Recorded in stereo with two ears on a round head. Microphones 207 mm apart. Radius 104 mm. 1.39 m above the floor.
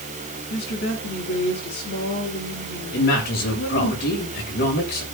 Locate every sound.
0.5 s a woman speaking: 45° left (ahead or behind), 8.5 m
2.9 s a man speaking: 45° left (ahead or behind), 6.5 m